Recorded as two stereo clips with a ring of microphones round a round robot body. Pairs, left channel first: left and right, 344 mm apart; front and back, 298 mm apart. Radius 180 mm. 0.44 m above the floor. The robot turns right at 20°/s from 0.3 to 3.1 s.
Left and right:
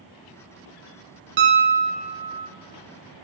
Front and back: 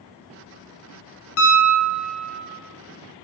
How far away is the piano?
About 0.5 m.